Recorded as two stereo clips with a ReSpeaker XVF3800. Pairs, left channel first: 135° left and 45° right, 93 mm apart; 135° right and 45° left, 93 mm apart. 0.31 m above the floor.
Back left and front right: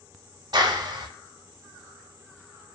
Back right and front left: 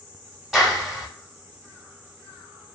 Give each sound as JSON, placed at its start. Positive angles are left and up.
{"t": 0.5, "sound": "a clap", "azimuth_deg": -40, "distance_m": 1.0}